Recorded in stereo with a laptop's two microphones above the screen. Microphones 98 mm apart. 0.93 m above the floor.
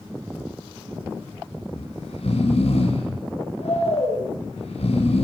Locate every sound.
1.7 s snoring: 80° left, 8.5 m